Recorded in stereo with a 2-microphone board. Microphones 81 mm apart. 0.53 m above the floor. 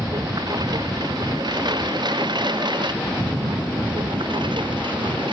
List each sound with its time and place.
0.0 s a lawn mower: 50° right (ahead or behind); by 5.3 s 70° right (ahead or behind)